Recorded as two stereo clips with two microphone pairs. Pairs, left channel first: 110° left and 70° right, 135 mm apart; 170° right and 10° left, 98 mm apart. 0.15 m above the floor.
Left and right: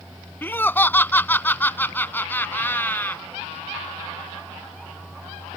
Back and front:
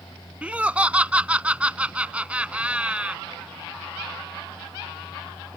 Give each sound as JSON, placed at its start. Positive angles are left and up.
{"t": 0.4, "sound": "laughter", "azimuth_deg": 65}